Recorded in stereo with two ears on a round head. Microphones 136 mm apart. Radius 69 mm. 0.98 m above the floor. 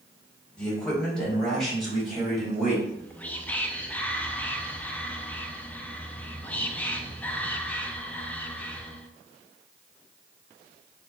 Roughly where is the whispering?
Centre.